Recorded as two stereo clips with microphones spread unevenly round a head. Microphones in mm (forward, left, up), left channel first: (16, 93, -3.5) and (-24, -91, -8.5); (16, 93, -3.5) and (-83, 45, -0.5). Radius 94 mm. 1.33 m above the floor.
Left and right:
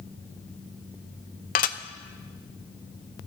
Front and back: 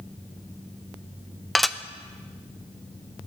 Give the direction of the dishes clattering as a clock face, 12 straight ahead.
8 o'clock.